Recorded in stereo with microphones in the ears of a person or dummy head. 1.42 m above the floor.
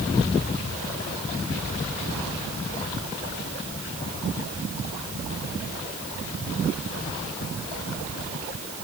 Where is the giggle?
I don't hear a giggle.